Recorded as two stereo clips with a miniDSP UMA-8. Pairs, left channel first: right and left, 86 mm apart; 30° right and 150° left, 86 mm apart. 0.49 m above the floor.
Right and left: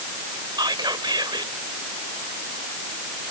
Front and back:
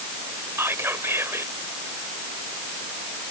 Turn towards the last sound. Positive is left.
turn(degrees=95)